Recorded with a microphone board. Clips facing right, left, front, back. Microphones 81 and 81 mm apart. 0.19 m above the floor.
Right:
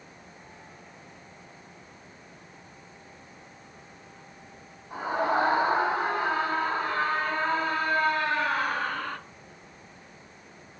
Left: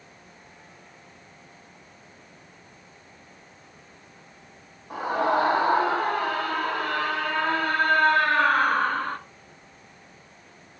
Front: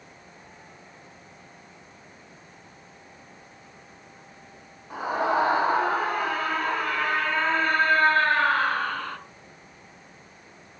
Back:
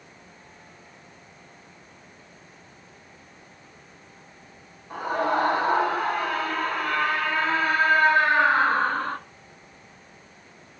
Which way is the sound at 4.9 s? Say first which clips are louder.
Left 3 dB, even; 80° left.